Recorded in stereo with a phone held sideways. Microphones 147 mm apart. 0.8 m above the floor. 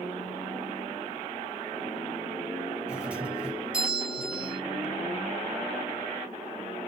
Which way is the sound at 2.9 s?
10° right (ahead or behind).